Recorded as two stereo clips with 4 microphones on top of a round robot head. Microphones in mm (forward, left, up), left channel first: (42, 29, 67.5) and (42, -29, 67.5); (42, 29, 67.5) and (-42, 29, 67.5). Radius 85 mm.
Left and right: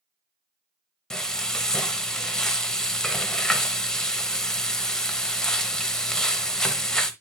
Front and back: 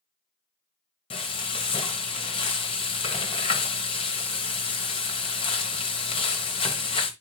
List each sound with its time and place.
1.1 s frying: 10° left, 1.1 m